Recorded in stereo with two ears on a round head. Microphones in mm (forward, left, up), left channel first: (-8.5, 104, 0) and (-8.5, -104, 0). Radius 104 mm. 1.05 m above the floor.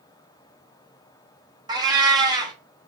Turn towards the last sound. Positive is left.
turn(degrees=-20)  # may be behind; listen again after turning